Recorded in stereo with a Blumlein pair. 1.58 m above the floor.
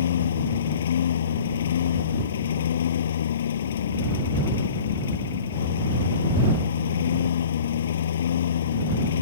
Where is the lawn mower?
60° left.